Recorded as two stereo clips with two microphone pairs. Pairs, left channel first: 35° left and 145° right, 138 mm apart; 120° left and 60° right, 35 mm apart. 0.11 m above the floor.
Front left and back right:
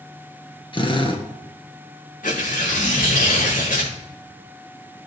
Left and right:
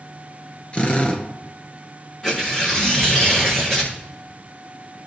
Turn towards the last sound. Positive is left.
turn(degrees=50)